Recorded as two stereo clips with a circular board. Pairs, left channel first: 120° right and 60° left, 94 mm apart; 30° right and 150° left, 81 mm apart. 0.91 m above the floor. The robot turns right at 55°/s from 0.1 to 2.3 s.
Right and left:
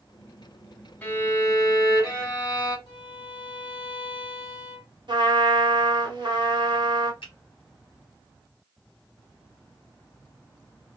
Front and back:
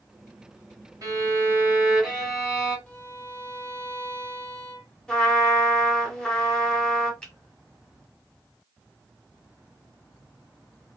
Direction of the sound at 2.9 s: 100° right.